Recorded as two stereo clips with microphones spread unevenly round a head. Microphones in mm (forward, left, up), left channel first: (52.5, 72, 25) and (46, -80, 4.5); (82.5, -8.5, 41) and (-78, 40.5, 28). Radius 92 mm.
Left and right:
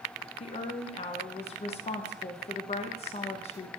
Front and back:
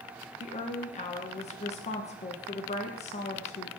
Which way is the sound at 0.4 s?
35° left.